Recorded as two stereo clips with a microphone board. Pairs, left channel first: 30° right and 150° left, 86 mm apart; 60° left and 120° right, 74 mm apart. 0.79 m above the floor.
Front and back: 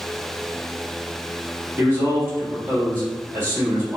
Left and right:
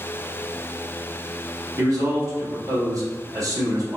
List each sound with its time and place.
1.8 s a man speaking: 150° right, 1.7 m